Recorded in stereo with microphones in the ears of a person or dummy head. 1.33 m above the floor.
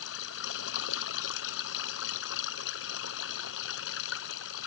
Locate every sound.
0.0 s running water: 70° left (ahead or behind)